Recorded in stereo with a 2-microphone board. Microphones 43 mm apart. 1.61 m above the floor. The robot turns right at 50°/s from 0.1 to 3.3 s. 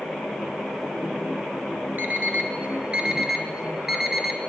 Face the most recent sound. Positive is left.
turn(degrees=-10)  # may be behind; listen again after turning